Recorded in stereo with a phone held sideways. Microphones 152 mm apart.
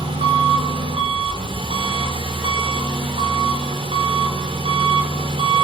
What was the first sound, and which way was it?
An engine running, 40° right (ahead or behind).